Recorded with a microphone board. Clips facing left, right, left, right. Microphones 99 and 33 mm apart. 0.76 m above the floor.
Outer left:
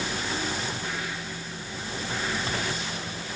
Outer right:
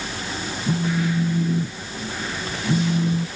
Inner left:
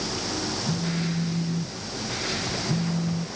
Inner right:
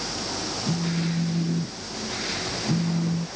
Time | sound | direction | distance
0.7 | a phone buzzing | 75° right (ahead or behind) | ?